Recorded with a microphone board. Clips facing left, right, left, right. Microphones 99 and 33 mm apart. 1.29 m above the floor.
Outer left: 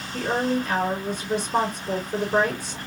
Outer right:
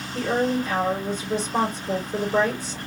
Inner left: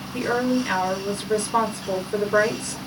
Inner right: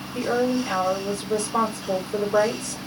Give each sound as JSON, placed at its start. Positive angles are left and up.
{"t": 0.1, "sound": "a woman speaking", "side_deg": 65, "distance_m": 3.5}